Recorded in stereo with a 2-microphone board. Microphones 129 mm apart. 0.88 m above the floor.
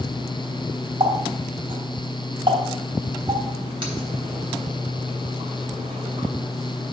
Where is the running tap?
40° right (ahead or behind), 3.5 m.